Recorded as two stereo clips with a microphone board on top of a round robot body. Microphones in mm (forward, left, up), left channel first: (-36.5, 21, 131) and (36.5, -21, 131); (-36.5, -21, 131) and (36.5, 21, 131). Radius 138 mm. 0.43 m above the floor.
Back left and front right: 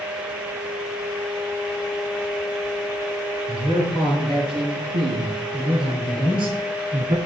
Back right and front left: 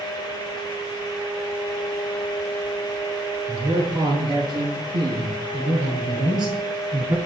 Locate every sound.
3.5 s a man speaking: 10° right, 8.5 m